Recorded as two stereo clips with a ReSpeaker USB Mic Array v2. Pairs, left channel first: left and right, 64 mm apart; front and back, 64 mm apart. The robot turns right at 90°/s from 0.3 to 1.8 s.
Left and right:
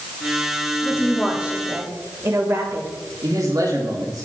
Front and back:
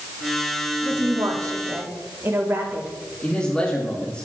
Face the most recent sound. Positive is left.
turn(degrees=-75)